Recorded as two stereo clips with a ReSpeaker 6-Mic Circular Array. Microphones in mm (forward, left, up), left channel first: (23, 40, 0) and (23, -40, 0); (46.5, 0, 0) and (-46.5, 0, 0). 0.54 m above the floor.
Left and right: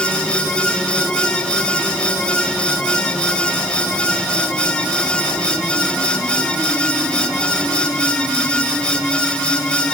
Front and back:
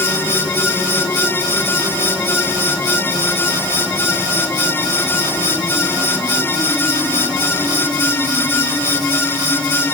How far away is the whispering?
No whispering in this recording.